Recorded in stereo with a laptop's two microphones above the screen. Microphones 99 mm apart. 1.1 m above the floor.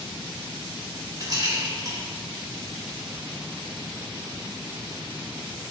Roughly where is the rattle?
Right.